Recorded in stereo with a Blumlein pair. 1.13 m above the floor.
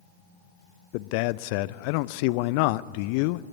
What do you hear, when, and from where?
0.9 s a man speaking: 45° left, 0.5 m